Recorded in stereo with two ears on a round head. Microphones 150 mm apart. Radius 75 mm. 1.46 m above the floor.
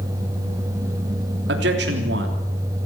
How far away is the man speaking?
About 3.5 m.